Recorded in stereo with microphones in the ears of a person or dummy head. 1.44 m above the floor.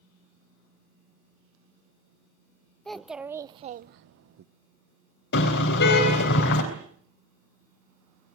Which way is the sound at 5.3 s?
60° left (ahead or behind).